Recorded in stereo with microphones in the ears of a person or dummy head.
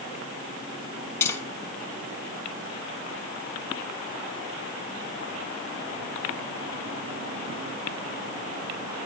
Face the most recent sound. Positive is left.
turn(degrees=20)  # may be behind; listen again after turning